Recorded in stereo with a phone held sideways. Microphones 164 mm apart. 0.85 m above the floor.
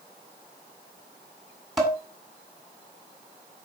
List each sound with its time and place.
1.8 s dishes clattering: centre (ahead or behind), 1.9 m